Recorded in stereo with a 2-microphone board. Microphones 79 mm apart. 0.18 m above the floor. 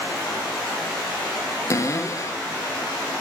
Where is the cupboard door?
40° left (ahead or behind), 2.5 m.